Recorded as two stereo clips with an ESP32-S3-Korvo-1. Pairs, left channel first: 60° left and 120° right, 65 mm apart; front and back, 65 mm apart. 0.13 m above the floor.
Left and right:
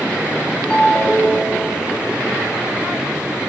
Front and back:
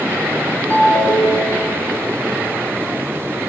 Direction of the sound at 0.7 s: Straight ahead.